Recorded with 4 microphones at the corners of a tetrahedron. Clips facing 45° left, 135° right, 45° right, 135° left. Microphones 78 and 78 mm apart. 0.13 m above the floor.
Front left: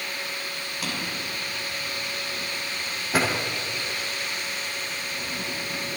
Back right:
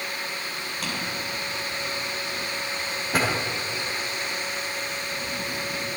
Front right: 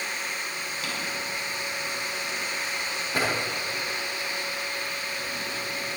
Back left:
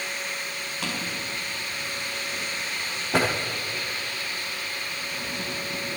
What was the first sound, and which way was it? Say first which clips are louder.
A drawer: even, back left 2 dB; 130° left.